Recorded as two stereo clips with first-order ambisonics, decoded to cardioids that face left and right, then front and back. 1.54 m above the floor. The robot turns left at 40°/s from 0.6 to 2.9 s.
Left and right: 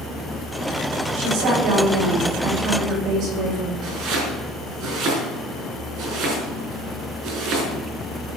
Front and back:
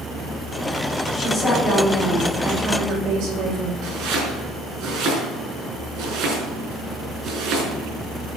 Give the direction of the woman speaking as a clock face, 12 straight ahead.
2 o'clock.